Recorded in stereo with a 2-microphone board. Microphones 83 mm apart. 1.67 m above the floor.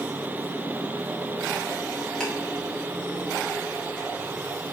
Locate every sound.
2.2 s ticking: 10° left (ahead or behind), 2 m